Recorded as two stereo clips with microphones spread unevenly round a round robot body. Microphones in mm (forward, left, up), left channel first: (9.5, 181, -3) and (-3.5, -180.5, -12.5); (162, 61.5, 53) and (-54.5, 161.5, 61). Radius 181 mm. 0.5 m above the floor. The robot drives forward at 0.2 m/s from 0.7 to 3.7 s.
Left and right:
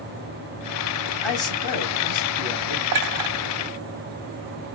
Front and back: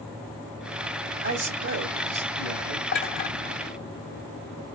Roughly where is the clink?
Ahead right.